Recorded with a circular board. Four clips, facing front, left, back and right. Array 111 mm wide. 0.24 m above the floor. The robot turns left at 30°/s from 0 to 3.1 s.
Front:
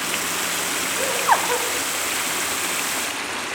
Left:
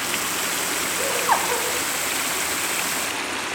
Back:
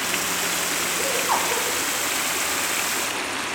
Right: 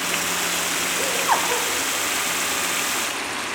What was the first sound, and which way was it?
Laughter, 15° left.